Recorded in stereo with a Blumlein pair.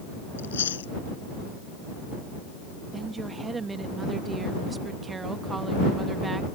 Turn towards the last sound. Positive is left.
turn(degrees=-15)